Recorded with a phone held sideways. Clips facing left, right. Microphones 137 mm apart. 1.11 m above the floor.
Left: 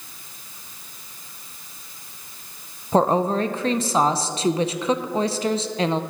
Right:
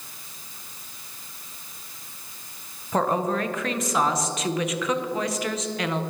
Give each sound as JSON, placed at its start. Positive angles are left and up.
{"t": 2.9, "sound": "a woman speaking", "side_deg": 30, "distance_m": 0.6}